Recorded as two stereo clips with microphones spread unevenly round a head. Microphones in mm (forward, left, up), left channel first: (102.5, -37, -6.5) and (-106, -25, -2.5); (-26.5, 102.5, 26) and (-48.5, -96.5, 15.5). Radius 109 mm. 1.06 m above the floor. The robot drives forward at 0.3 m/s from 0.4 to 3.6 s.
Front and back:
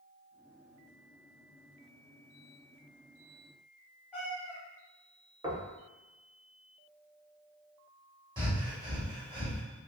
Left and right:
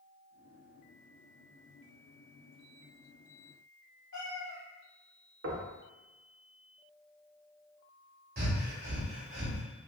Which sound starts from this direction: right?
Knocking, at 5.4 s.